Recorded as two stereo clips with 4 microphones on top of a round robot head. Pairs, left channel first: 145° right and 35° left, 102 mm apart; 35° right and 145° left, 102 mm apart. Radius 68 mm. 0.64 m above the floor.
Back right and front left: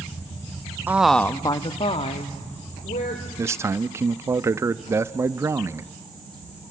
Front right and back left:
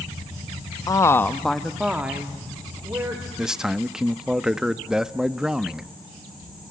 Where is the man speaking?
65° left, 0.7 m.